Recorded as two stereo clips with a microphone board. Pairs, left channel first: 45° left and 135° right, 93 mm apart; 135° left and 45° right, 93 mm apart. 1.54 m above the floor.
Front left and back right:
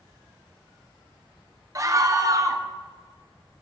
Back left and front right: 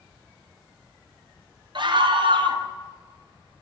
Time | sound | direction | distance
1.8 | a scream | 80° right | 0.8 m